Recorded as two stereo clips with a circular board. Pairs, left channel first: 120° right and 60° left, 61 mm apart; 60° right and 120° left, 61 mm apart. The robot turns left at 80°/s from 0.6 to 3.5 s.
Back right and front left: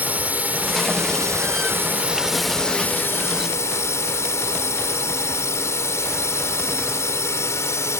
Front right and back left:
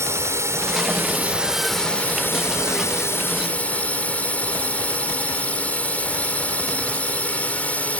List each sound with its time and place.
0.0 s a drone: 115° left; by 8.0 s 120° right